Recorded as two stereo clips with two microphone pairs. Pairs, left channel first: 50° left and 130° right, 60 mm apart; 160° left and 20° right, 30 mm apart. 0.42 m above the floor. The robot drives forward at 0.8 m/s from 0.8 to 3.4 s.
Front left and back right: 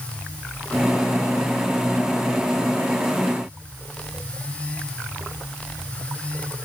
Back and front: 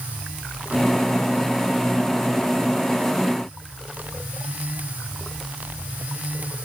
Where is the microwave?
No microwave in this recording.